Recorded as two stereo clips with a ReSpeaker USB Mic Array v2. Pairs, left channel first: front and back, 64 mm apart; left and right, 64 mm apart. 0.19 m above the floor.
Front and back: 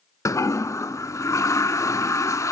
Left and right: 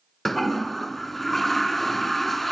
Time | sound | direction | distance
0.2 | a toilet flushing | 5° left | 0.6 m